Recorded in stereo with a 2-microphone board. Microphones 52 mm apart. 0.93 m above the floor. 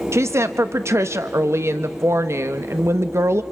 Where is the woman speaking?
55° right (ahead or behind), 0.8 m.